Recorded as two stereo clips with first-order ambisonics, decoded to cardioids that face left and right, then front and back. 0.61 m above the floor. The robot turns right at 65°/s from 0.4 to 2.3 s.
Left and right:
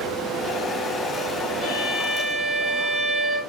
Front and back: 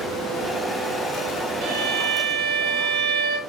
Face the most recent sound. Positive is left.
turn(degrees=-170)